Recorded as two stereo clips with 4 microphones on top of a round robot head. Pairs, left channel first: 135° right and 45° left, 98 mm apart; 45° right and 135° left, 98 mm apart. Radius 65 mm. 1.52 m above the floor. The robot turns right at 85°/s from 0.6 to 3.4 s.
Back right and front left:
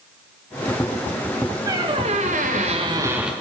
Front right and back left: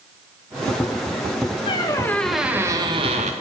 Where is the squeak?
10° right, 1.0 m; by 3.3 s 130° left, 1.0 m.